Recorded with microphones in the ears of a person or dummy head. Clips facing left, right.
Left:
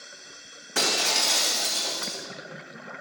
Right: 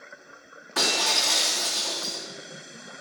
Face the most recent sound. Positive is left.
turn(degrees=40)  # may be behind; listen again after turning